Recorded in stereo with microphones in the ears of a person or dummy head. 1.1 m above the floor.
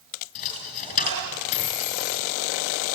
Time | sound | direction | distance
0.3 | a dropped coin | 40° left (ahead or behind) | 3.5 m